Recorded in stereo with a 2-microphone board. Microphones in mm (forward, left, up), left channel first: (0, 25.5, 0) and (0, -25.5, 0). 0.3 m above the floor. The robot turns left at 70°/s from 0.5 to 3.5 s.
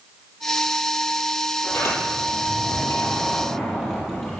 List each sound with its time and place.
1.6 s a sliding door: 140° left, 8.5 m; by 4.4 s 10° left, 8.5 m